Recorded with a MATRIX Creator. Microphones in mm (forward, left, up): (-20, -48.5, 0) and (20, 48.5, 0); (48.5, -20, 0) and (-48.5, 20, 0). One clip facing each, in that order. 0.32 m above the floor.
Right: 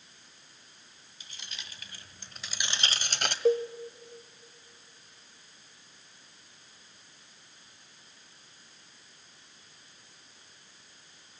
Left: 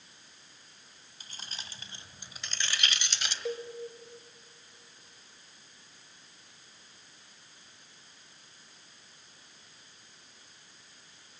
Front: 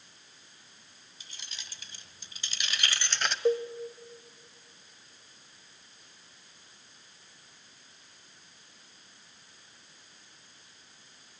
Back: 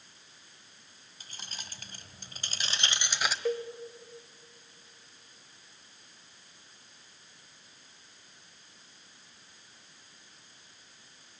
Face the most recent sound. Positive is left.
turn(degrees=-80)